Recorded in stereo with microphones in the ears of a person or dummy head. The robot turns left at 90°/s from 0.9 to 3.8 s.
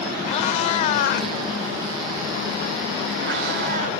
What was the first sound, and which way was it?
A cat meowing, 40° left (ahead or behind).